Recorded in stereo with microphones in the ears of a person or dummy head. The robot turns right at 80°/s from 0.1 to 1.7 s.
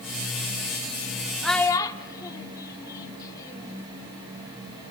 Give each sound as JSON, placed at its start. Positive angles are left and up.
{"t": 1.4, "sound": "a child speaking", "side_deg": 0, "distance_m": 1.4}